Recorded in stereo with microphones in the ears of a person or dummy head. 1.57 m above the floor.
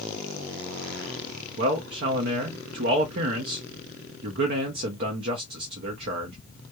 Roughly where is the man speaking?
Right.